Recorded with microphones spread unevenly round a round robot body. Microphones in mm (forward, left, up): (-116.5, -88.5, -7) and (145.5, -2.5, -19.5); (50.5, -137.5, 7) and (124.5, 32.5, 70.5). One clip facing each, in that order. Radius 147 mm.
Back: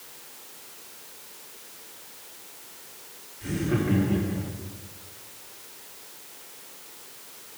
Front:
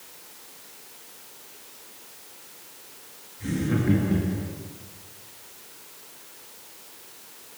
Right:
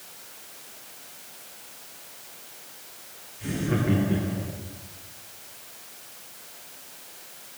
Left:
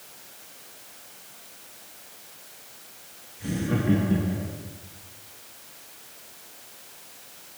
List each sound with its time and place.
3.4 s laughter: 15° right, 5.5 m